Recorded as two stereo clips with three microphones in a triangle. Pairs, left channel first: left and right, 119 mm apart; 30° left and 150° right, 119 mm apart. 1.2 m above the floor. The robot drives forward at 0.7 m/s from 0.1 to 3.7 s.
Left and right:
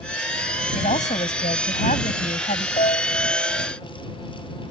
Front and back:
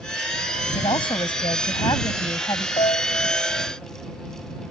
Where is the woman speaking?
75° left; by 2.7 s 90° left.